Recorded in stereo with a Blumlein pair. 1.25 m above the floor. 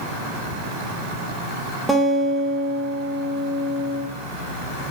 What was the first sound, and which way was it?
A guitar, straight ahead.